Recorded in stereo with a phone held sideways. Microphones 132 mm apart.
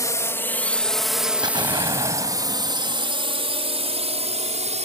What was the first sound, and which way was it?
A drone, 25° left (ahead or behind).